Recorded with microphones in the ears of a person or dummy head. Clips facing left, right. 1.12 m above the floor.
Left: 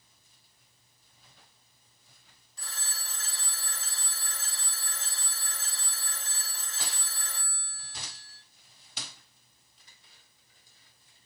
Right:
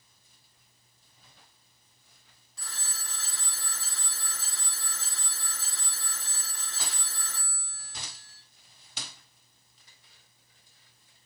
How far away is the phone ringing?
About 1.3 m.